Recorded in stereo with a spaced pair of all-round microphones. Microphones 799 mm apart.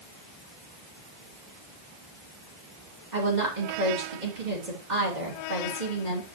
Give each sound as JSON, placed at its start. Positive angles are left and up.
{"t": 3.1, "sound": "a woman speaking", "side_deg": -65, "distance_m": 3.5}